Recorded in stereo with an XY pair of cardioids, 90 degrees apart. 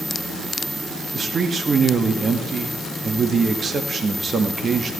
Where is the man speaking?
45° right, 2 m.